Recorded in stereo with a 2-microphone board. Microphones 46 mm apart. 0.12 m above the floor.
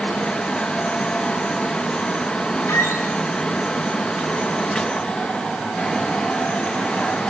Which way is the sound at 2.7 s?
80° left.